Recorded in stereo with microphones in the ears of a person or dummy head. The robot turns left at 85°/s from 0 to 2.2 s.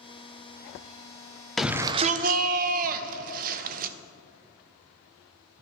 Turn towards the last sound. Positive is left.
turn(degrees=-50)